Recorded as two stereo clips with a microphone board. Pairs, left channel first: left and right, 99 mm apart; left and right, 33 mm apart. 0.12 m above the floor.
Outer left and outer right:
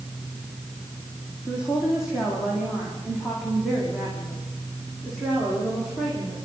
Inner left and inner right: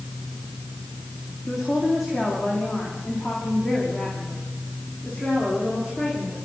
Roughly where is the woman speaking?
Centre.